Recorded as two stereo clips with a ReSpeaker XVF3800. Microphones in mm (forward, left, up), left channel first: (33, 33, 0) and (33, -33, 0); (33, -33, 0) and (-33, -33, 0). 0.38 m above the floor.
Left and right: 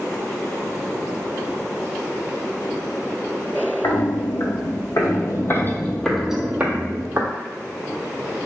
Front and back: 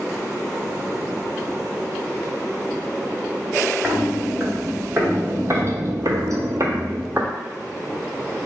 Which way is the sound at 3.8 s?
105° left.